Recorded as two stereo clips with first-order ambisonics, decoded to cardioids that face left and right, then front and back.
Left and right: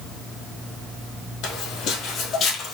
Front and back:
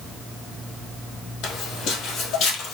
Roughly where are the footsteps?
Ahead left.